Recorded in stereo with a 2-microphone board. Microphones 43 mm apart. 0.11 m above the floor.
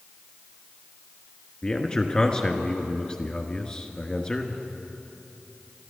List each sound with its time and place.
1.6 s a man speaking: 20° left (ahead or behind), 1.2 m